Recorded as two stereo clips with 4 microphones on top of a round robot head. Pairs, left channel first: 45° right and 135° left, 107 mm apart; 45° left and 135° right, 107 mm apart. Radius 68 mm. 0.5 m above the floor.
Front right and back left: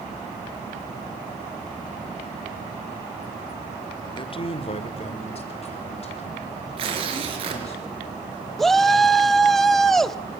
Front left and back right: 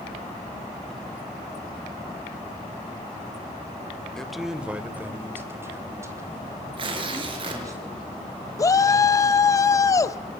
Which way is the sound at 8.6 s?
40° left.